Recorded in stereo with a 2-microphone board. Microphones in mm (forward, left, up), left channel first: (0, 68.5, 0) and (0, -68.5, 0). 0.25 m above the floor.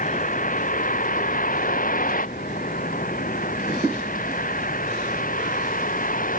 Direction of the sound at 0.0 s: 70° left (ahead or behind).